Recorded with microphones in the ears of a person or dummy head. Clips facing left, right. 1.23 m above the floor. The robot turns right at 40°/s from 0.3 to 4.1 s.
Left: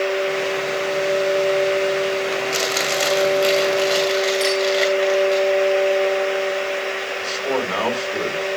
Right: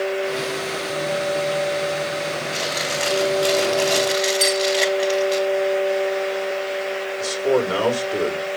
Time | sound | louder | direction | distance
2.5 | chewing | left 3 dB | 115° left | 3 m
4.4 | a clink | left 2 dB | 5° right (ahead or behind) | 4.5 m
7.2 | a man speaking | right 5 dB | 25° right (ahead or behind) | 4.5 m